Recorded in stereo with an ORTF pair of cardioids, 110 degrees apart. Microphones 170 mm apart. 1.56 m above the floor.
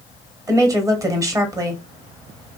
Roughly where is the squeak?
No squeak in this recording.